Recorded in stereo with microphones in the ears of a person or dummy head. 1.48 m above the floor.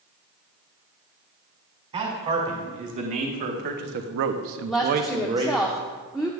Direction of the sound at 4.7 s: Centre (ahead or behind).